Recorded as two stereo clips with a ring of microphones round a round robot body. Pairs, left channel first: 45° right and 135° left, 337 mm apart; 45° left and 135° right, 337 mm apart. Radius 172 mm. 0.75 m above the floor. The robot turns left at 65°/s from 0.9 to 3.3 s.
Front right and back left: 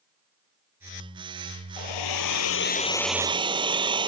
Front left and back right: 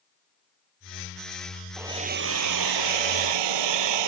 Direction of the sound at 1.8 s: 50° right.